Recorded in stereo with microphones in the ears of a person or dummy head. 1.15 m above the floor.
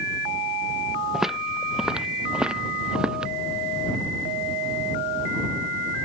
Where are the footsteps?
5° right (ahead or behind).